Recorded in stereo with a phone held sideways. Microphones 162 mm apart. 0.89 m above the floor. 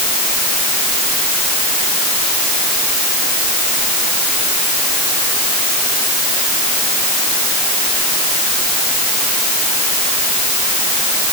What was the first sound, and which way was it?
Only background noise.